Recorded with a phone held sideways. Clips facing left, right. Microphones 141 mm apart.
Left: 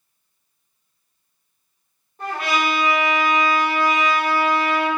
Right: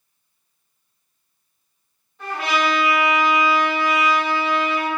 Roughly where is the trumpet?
Left.